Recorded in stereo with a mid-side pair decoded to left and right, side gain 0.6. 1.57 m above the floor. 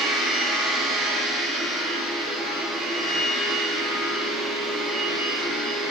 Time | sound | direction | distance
0.0 | a machine running | 60° right | 1.0 m